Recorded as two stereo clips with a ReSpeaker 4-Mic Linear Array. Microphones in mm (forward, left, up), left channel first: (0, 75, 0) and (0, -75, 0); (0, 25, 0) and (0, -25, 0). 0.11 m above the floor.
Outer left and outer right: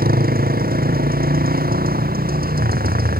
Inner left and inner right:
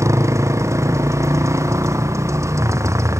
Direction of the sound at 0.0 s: 85° right.